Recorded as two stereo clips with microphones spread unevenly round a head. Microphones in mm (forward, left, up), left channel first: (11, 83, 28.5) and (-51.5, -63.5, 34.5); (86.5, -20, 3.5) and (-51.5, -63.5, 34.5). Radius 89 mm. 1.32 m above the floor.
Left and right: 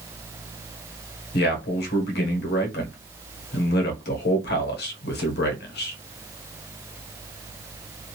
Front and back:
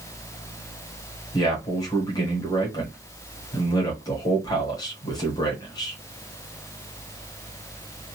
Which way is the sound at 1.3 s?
80° left.